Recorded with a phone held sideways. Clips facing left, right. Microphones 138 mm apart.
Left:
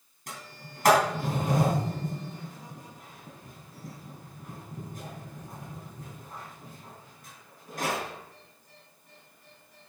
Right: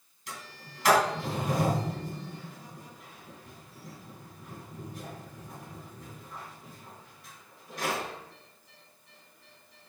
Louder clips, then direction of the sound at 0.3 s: Left 1 dB; 50° left (ahead or behind).